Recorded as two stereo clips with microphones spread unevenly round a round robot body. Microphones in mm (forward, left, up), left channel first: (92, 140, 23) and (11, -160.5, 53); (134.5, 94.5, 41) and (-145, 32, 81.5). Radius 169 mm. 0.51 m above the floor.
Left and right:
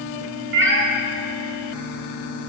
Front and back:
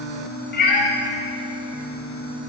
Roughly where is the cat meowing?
Ahead right.